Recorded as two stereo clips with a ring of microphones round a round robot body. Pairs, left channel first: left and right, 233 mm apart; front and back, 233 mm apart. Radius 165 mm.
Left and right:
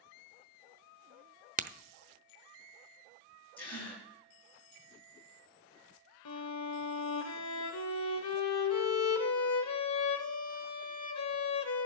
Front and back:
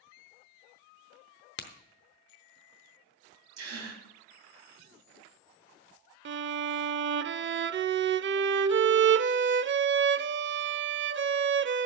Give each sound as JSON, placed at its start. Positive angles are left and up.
{"t": 1.6, "sound": "a crack", "azimuth_deg": -40, "distance_m": 0.7}
{"t": 3.6, "sound": "a gasp", "azimuth_deg": 175, "distance_m": 3.0}
{"t": 6.2, "sound": "a violin", "azimuth_deg": 135, "distance_m": 0.5}